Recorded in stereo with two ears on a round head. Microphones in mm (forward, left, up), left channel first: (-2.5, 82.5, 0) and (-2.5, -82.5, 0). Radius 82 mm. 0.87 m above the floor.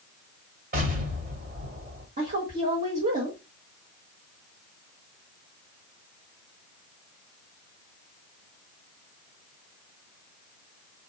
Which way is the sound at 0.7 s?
45° right (ahead or behind).